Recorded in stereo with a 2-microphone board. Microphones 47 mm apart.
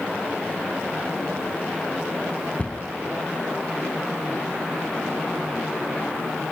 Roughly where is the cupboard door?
Left.